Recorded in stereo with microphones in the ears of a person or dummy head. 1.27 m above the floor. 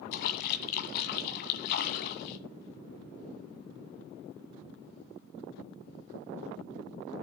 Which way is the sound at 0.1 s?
55° left (ahead or behind).